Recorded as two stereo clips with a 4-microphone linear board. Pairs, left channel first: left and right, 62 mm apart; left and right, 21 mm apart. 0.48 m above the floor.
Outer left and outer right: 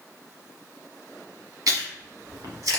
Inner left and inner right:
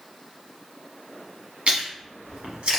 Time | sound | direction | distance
1.7 | chewing | 85° right | 1.0 m